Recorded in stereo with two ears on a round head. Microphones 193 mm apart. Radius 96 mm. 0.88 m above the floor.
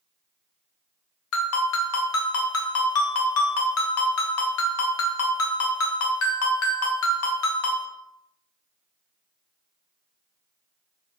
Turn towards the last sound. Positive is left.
turn(degrees=70)  # may be behind; listen again after turning